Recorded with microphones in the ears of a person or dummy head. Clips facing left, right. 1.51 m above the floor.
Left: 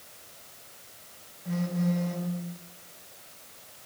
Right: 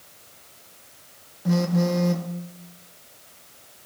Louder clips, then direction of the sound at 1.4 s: Right 7 dB; 75° right (ahead or behind).